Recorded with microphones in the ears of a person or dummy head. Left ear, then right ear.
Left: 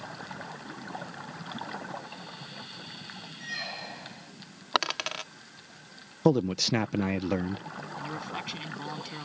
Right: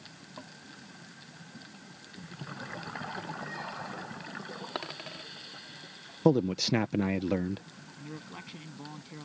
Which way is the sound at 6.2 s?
10° left (ahead or behind).